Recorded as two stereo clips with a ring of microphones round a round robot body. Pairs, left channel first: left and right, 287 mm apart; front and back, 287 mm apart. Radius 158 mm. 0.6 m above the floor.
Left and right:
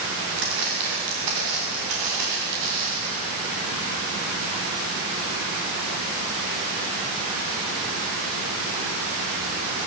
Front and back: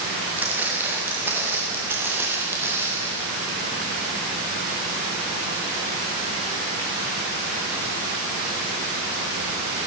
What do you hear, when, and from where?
0.4 s footsteps: 95° right, 6 m; by 3.1 s 100° right, 8 m